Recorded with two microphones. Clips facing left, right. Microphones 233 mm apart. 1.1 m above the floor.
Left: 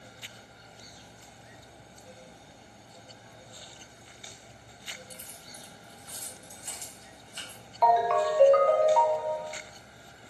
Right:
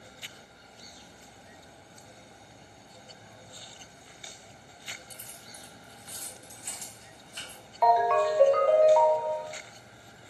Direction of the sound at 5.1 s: 45° right (ahead or behind).